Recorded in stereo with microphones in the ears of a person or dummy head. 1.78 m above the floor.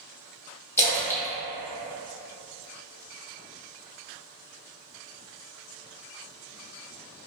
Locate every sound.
0.8 s a splash: 15° left (ahead or behind), 0.7 m